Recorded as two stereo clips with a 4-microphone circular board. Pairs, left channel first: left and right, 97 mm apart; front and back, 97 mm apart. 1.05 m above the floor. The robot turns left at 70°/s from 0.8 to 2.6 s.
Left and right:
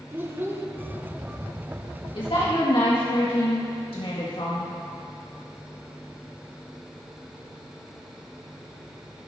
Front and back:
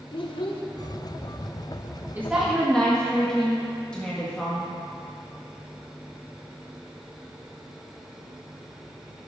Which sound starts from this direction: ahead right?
A child speaking, at 0.1 s.